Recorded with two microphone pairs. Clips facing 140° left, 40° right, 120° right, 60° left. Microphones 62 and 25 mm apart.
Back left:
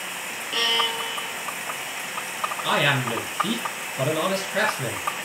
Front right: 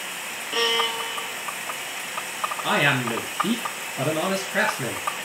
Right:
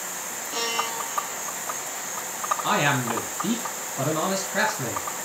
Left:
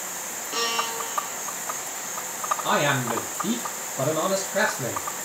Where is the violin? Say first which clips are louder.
Front right 1 dB, left 1 dB; 25° left, 0.5 m.